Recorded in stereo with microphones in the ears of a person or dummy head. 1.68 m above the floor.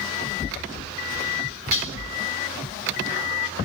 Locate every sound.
1.7 s dishes clattering: 35° left (ahead or behind), 1.9 m